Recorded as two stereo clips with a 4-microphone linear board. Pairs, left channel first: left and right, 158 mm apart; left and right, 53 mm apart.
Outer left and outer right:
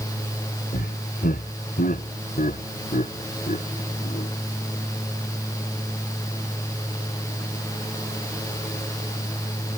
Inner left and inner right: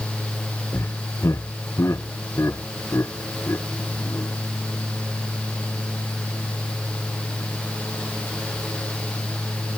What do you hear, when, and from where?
0.7 s laughter: 70° left (ahead or behind); by 4.3 s 50° left (ahead or behind)